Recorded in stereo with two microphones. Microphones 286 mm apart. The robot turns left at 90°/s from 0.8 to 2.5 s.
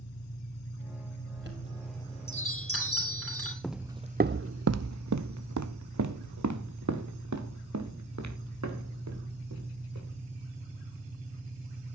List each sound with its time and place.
0.0 s an engine running: 130° left, 3 m; by 11.9 s 25° right, 3 m
1.4 s a chime: 130° right, 3 m; by 3.5 s 125° left, 3 m
3.6 s footsteps: 5° left (ahead or behind), 0.5 m; by 10.2 s 70° right (ahead or behind), 3.5 m